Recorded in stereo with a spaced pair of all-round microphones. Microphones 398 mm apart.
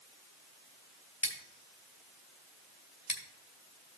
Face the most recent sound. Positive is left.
turn(degrees=45)  # may be behind; listen again after turning